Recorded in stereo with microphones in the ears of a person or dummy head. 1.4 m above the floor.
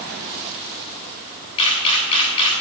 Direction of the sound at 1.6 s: 30° left (ahead or behind).